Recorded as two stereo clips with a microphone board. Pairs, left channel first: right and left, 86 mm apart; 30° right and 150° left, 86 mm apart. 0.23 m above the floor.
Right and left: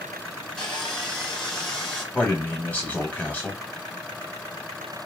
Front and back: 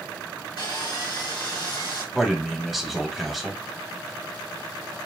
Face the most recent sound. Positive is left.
turn(degrees=-125)